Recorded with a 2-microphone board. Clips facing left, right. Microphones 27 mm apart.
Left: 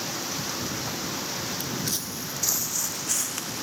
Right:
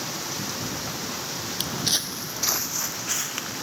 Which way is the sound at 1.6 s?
60° right (ahead or behind).